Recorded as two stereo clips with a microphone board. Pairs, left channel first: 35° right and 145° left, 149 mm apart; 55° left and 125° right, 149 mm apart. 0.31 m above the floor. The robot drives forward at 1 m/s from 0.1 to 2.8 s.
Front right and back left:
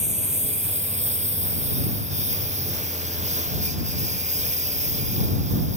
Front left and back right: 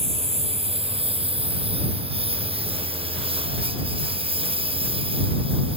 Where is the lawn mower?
175° right.